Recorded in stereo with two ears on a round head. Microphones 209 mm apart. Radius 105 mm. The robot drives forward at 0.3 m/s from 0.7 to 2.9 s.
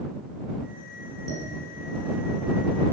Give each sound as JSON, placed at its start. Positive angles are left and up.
{"t": 1.3, "sound": "dishes clattering", "side_deg": -60, "distance_m": 8.0}